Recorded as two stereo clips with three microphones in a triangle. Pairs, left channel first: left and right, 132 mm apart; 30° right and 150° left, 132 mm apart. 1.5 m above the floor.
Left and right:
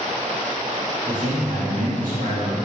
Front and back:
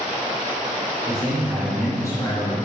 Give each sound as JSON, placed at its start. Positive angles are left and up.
{"t": 1.1, "sound": "a man speaking", "azimuth_deg": -150, "distance_m": 1.4}